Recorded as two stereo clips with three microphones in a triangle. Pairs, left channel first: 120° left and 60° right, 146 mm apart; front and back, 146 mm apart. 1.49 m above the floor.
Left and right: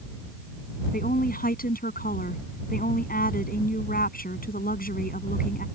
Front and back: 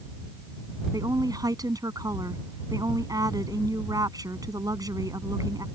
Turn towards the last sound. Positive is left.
turn(degrees=115)